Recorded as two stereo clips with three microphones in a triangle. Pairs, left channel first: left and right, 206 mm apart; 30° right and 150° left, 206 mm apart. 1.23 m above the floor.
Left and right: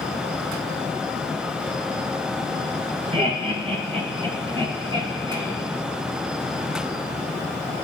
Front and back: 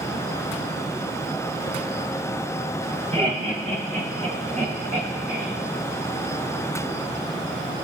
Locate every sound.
3.1 s laughter: 150° right, 4 m; by 5.5 s 165° right, 3 m